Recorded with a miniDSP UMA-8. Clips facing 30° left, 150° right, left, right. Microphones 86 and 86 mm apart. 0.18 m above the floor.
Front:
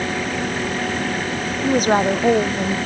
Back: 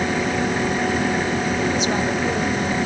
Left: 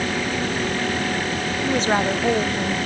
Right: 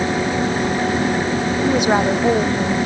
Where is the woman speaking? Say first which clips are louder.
Front 4 dB, right 3 dB; 15° right; by 2.8 s 10° right.